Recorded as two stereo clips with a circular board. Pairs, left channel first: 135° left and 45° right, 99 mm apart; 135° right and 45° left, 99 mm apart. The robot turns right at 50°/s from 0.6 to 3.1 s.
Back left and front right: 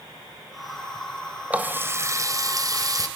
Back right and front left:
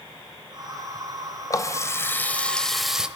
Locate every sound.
1.5 s a running tap: 110° right, 0.7 m; by 3.1 s 30° right, 0.7 m